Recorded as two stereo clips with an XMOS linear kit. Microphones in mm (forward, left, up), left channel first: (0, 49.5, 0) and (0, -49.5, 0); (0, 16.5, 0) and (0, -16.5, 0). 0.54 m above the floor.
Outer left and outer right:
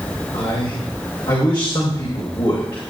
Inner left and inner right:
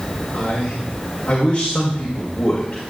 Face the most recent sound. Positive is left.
turn(degrees=55)  # may be behind; listen again after turning